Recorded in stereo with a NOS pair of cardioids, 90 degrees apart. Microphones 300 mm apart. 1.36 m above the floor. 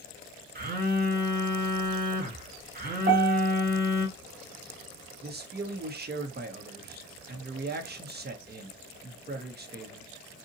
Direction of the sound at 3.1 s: 45° right.